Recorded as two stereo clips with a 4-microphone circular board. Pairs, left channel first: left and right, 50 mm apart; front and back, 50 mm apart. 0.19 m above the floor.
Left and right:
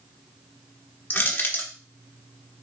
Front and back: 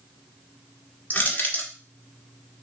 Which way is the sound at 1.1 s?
50° left.